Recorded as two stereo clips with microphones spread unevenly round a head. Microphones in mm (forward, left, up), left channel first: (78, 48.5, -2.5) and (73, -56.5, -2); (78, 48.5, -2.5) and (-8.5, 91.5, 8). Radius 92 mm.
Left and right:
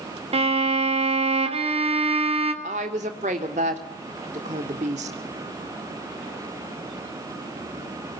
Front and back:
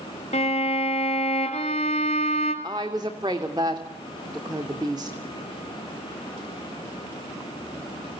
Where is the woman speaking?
135° right, 2.5 m.